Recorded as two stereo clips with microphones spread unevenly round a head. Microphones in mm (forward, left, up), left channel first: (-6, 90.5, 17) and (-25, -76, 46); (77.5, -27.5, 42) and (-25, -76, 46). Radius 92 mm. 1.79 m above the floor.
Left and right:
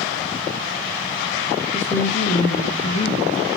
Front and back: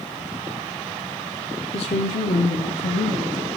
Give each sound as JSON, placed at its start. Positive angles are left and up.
{"t": 1.7, "sound": "a woman speaking", "azimuth_deg": -5, "distance_m": 1.1}